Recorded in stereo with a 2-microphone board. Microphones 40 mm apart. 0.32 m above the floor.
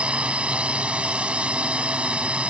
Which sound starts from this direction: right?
A drone, at 0.0 s.